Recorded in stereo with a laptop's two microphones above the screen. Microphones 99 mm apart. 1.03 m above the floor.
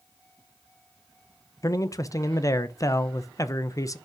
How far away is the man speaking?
About 0.7 m.